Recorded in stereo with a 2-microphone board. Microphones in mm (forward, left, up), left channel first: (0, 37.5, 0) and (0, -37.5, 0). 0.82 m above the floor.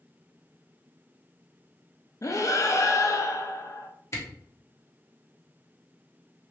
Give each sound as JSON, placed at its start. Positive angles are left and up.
{"t": 2.2, "sound": "breathing", "side_deg": 45, "distance_m": 0.5}
{"t": 4.1, "sound": "a camera shutter", "side_deg": 40, "distance_m": 1.2}